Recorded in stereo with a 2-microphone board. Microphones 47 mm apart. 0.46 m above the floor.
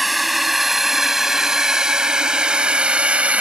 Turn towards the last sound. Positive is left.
turn(degrees=-30)  # may be behind; listen again after turning